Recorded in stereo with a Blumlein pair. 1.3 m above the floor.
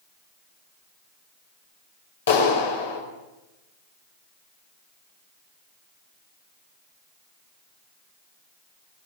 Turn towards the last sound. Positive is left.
turn(degrees=60)